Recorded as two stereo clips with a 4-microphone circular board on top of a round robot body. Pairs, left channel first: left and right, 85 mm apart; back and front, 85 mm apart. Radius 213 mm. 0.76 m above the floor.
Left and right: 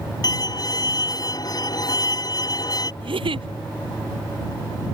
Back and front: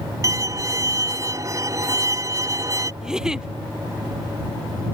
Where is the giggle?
80° right.